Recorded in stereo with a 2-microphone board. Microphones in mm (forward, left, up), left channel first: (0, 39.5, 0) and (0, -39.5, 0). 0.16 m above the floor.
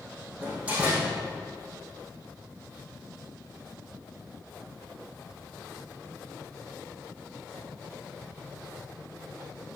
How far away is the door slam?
About 5 m.